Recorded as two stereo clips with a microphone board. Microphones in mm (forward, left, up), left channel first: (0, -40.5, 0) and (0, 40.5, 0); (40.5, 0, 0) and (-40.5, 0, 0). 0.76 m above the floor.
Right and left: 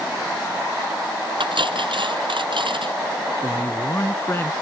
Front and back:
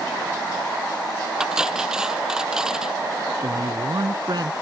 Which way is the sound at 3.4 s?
150° right.